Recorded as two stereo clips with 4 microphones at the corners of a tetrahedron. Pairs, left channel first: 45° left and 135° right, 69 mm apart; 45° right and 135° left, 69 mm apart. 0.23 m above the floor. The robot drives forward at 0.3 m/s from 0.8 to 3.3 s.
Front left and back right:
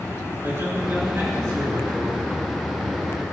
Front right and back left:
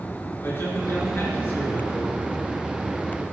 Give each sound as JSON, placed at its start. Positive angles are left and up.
{"t": 0.4, "sound": "a man speaking", "azimuth_deg": -95, "distance_m": 3.5}